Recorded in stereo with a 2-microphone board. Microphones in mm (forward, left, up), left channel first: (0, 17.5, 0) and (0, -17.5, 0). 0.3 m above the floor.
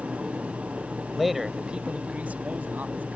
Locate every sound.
1.1 s a man speaking: 5° left (ahead or behind); by 3.1 s 65° right (ahead or behind)